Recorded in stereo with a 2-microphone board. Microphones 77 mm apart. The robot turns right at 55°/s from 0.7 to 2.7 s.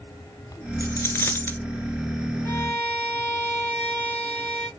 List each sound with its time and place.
0.8 s a dropped coin: 95° left, 0.7 m; by 1.6 s 140° left, 0.7 m
2.5 s a violin: 35° left (ahead or behind), 0.8 m; by 4.7 s 25° left (ahead or behind), 0.8 m